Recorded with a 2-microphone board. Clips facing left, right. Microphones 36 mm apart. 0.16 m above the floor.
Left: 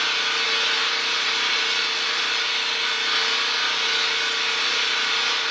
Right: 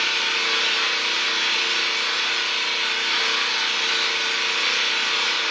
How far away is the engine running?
About 3.5 m.